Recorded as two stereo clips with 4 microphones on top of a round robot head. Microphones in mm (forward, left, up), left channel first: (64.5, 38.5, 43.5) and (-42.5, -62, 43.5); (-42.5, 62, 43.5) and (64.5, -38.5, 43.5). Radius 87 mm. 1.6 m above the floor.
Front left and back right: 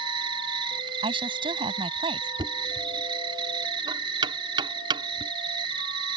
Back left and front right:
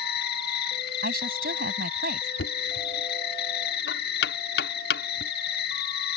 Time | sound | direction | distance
0.0 | an insect | 160° left | ?
1.0 | a woman speaking | 80° right | ?
2.4 | knocking | 160° left | ?